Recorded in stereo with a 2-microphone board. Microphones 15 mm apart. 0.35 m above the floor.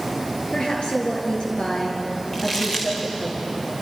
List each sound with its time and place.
0.5 s a woman speaking: 65° left (ahead or behind), 6.5 m
2.3 s crumpling: 40° left (ahead or behind), 5.5 m